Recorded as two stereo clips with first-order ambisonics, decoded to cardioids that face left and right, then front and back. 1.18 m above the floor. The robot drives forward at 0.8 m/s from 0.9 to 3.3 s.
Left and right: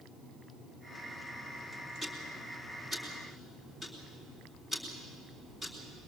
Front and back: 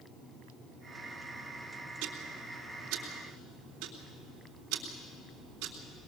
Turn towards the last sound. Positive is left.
turn(degrees=-170)